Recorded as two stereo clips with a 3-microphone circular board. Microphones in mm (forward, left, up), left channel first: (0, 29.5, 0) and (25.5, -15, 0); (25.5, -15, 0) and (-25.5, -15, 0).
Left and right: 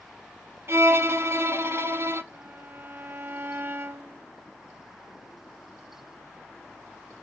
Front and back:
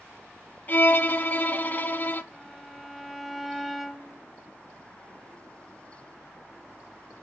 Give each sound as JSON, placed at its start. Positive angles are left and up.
{"t": 0.7, "sound": "a violin", "azimuth_deg": -45, "distance_m": 0.5}
{"t": 2.3, "sound": "a violin", "azimuth_deg": -95, "distance_m": 0.5}